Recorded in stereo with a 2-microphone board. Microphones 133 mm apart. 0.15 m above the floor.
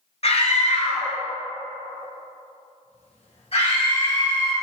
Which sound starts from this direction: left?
A scream, at 0.2 s.